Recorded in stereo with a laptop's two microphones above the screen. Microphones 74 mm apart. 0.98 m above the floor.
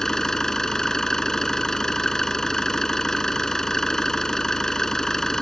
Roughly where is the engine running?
Centre.